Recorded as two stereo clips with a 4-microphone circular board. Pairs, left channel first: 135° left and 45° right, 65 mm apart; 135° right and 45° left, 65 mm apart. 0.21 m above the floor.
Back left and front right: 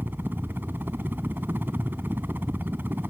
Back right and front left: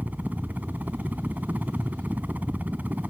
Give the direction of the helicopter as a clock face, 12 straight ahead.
12 o'clock.